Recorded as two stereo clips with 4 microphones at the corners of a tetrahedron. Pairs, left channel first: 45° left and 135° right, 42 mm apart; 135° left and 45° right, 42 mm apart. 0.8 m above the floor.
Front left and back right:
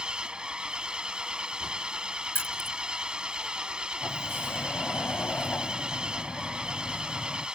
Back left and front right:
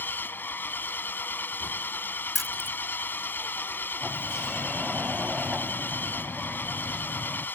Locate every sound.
0.0 s an engine running: 160° left
2.4 s keys jangling: 45° left
4.0 s a sliding door: 25° left